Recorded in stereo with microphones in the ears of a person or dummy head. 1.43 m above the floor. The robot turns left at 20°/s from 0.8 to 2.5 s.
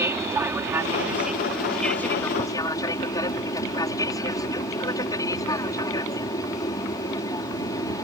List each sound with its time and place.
0.0 s an aircraft: 170° right; by 8.0 s 155° left